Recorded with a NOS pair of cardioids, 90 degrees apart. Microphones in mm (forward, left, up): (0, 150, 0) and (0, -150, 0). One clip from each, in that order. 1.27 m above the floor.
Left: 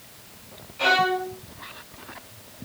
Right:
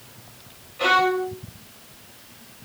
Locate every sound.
0.8 s a violin: straight ahead, 0.7 m